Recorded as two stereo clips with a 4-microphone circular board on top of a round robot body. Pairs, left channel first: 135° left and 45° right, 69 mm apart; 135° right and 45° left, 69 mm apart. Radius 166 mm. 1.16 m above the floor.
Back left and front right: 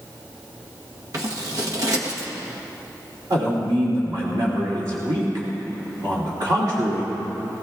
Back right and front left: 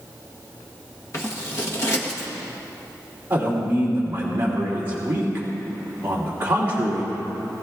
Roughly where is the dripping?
No dripping in this recording.